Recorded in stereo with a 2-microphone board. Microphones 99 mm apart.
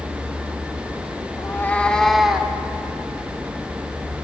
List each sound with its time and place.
1.4 s a cat meowing: 30° left (ahead or behind), 1.8 m; by 2.5 s 10° right (ahead or behind), 2 m